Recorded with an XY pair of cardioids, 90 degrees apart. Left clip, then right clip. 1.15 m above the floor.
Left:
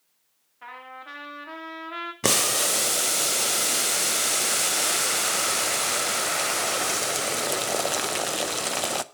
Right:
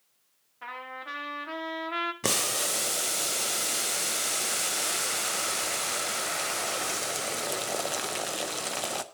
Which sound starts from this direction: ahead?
A trumpet, at 0.6 s.